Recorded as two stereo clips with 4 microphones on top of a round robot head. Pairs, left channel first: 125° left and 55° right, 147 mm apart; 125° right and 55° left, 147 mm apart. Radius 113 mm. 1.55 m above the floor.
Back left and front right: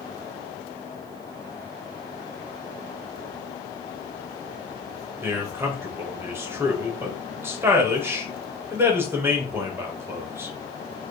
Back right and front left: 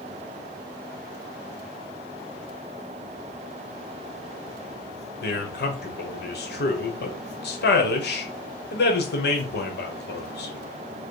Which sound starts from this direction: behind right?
A man speaking, at 5.2 s.